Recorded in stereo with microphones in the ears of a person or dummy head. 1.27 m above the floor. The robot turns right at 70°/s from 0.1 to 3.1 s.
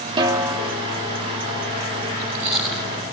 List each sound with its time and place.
0.2 s a snare drum: 30° right, 2.5 m; by 0.7 s 10° left, 2.5 m
2.1 s chewing: 35° right (ahead or behind), 6 m; by 3.0 s 30° left (ahead or behind), 6 m